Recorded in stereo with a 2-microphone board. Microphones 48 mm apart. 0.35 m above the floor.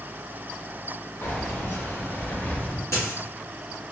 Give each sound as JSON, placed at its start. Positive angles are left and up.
{"t": 1.2, "sound": "keys jangling", "side_deg": 60, "distance_m": 1.1}
{"t": 2.9, "sound": "a dropped coin", "side_deg": 90, "distance_m": 1.2}